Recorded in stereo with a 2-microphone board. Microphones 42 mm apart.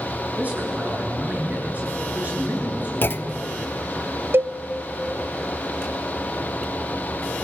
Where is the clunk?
55° left (ahead or behind), 0.6 m.